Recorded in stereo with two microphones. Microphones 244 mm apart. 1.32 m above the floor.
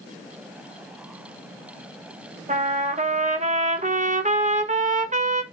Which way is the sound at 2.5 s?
30° right (ahead or behind).